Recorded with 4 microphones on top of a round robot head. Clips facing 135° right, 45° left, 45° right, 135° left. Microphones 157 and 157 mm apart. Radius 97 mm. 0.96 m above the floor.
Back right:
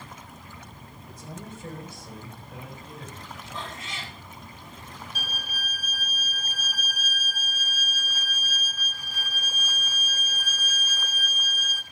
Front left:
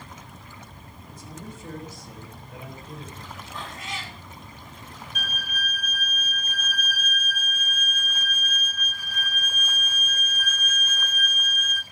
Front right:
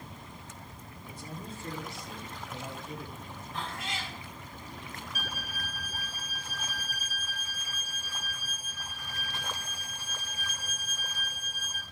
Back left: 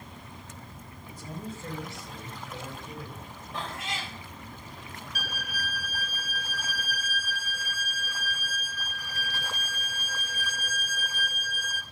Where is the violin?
165° left, 0.6 m.